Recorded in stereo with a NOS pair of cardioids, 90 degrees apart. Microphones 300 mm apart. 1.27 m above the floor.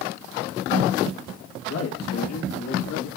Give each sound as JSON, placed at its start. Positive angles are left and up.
{"t": 1.7, "sound": "a man speaking", "azimuth_deg": 50, "distance_m": 2.0}